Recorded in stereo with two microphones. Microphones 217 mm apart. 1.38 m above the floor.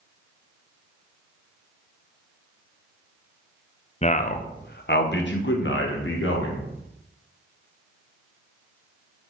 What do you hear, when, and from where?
4.0 s a man speaking: 30° left (ahead or behind), 0.7 m; by 6.7 s 65° left (ahead or behind), 2 m